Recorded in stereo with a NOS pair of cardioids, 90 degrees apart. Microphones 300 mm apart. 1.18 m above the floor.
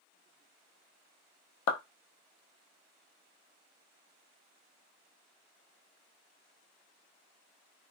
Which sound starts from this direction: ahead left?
A clap, at 1.7 s.